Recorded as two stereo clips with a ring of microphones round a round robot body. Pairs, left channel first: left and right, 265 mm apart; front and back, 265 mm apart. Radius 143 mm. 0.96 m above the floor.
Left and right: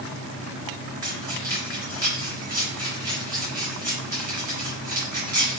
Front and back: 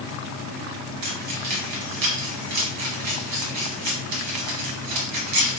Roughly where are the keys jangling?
Behind.